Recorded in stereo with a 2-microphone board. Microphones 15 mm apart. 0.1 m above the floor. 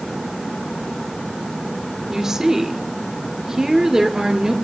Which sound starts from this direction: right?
A woman speaking, at 2.1 s.